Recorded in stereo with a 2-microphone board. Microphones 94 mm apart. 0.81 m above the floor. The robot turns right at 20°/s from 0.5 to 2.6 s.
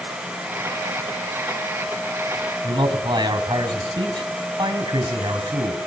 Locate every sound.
2.6 s a man speaking: 50° right (ahead or behind), 4.5 m